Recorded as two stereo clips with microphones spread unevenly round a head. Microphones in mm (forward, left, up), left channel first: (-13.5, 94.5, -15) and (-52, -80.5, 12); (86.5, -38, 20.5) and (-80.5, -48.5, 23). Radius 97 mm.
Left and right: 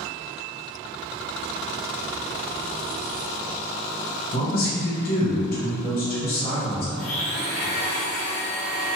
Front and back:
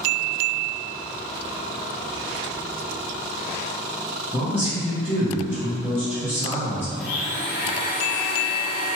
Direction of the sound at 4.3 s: 105° left.